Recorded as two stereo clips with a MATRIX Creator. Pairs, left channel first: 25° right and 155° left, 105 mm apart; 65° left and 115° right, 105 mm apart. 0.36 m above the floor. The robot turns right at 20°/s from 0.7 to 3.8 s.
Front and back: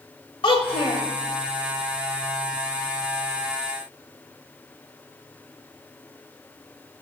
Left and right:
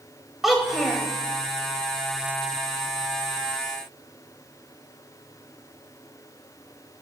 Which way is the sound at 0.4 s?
25° right.